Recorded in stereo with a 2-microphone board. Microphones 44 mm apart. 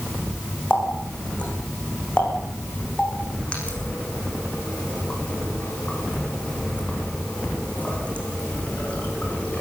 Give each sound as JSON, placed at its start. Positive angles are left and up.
{"t": 0.7, "sound": "a running tap", "side_deg": 30, "distance_m": 8.5}